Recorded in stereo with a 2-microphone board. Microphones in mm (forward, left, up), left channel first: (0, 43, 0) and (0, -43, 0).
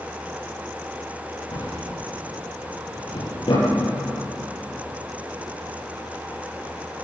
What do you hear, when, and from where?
1.5 s a drawer: 80° left, 9 m